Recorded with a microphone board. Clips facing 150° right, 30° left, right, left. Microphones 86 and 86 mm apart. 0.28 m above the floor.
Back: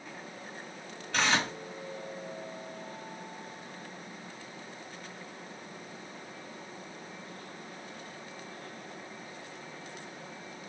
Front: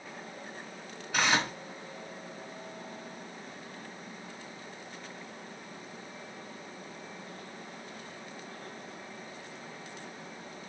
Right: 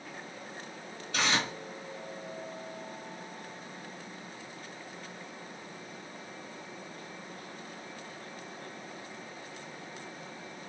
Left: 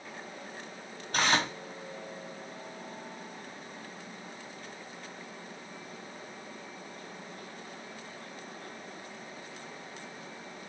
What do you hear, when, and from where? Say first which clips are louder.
1.1 s tearing paper: even, left 3 dB; 110° left, 1.5 m